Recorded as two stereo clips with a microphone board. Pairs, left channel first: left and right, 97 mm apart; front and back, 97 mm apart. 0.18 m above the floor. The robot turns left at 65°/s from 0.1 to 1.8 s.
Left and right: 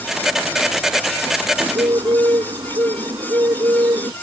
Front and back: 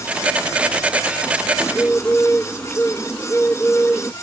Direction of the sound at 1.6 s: 60° right.